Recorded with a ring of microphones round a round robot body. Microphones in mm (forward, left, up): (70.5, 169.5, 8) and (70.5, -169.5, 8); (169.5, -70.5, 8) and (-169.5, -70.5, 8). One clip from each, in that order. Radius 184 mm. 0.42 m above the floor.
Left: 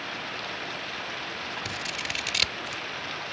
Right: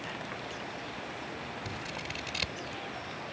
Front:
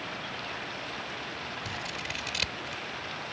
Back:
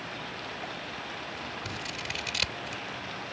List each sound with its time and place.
0.0 s running water: 85° left
1.6 s scissors: 95° left